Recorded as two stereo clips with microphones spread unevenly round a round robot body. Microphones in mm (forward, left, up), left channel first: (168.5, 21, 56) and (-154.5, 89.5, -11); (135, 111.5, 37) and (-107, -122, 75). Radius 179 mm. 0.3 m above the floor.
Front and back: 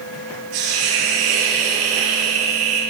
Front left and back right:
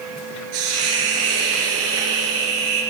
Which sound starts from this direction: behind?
A hiss, at 0.5 s.